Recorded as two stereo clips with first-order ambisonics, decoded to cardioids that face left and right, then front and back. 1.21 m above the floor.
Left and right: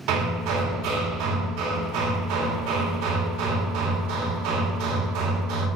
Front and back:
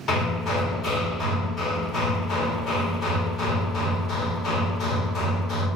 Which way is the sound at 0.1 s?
65° right.